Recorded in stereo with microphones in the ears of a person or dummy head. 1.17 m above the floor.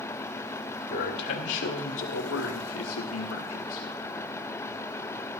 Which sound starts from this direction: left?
A man speaking, at 0.9 s.